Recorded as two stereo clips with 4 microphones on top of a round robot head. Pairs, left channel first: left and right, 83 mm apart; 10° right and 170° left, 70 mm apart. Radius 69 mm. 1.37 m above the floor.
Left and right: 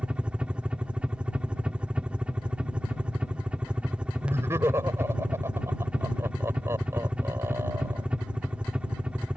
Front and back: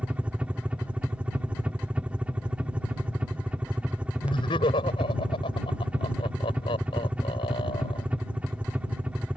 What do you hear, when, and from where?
0.0 s a helicopter: 150° right
4.2 s laughter: 20° right